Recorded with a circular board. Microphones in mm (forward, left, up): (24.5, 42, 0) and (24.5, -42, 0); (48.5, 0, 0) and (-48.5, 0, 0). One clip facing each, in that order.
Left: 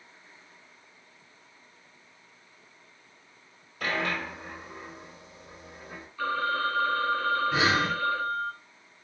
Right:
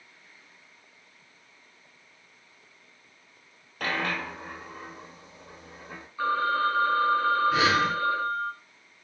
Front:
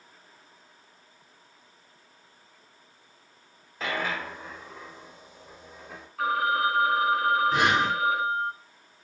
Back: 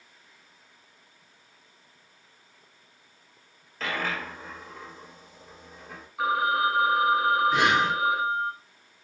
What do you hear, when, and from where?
3.8 s a dropped coin: 80° right, 1.5 m
6.2 s a phone ringing: 115° right, 0.7 m
7.5 s breathing: 40° left, 0.9 m